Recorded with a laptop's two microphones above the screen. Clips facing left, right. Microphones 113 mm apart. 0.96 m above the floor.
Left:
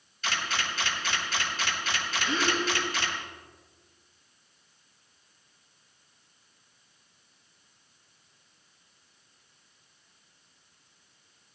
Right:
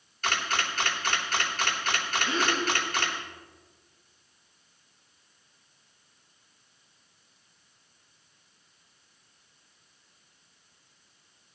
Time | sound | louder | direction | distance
0.2 | a camera shutter | right 2 dB | 60° right (ahead or behind) | 2.5 m
2.2 | a gasp | even | 40° right (ahead or behind) | 9 m